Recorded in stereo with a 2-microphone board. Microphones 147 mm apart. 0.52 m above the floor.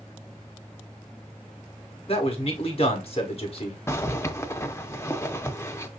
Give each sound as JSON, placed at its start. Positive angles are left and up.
{"t": 2.1, "sound": "a man speaking", "side_deg": 40, "distance_m": 1.3}
{"t": 3.9, "sound": "a zipper", "side_deg": 20, "distance_m": 0.6}